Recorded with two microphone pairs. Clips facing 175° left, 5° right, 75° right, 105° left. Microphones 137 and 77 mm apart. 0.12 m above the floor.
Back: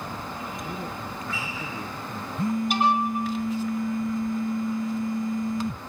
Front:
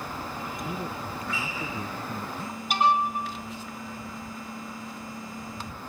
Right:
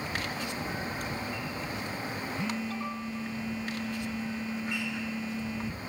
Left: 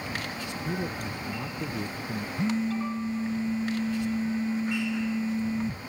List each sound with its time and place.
0.7 s a man speaking: 75° left
2.4 s a phone buzzing: 155° left